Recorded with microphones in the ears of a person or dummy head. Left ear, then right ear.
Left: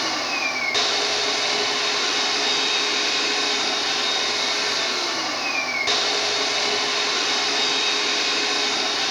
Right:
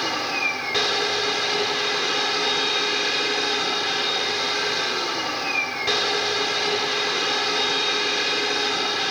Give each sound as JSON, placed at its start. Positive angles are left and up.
{"t": 0.0, "sound": "a machine running", "side_deg": 15, "distance_m": 1.1}